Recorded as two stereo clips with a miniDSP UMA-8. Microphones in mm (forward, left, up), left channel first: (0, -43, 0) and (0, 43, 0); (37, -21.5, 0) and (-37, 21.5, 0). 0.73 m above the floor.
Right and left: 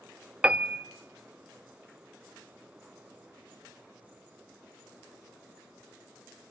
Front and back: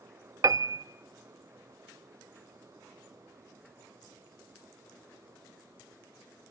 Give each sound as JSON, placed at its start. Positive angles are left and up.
{"t": 0.4, "sound": "a piano", "azimuth_deg": 160, "distance_m": 0.7}